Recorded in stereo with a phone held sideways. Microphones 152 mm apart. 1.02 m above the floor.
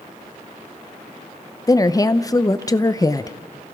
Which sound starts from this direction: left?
A woman speaking, at 1.7 s.